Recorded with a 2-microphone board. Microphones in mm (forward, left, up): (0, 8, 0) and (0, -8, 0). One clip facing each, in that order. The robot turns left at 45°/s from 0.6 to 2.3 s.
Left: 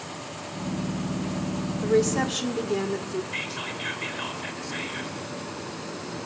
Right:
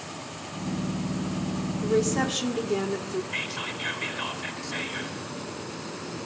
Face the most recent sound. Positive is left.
turn(degrees=-5)  # may be behind; listen again after turning